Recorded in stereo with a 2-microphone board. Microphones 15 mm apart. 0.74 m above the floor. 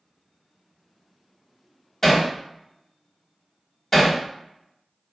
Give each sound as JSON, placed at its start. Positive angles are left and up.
{"t": 2.0, "sound": "hammering", "side_deg": 30, "distance_m": 1.4}